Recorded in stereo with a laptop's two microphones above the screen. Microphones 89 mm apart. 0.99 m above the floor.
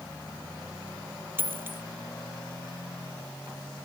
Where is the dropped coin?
25° right (ahead or behind).